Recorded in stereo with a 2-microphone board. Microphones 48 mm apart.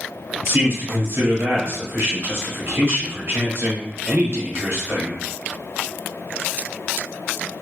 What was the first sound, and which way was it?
A man speaking, 55° right (ahead or behind).